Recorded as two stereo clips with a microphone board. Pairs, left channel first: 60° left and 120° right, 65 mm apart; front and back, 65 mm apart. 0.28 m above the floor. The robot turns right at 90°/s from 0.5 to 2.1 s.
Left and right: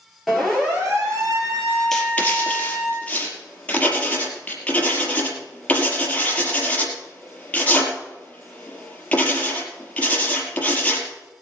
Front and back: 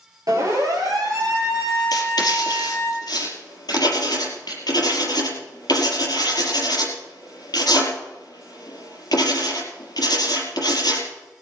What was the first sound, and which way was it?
A siren, 150° left.